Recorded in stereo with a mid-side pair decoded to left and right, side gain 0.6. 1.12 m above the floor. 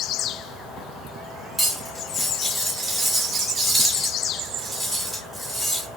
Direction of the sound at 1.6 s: 10° right.